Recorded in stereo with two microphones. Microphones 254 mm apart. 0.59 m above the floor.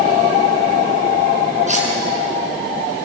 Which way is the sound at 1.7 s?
30° right (ahead or behind).